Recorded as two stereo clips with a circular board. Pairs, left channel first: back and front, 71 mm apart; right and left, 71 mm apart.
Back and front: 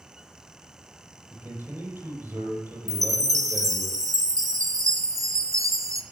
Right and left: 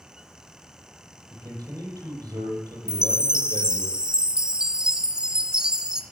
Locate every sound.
1.3 s a man speaking: 60° left, 8.5 m
2.9 s a chime: 15° left, 1.4 m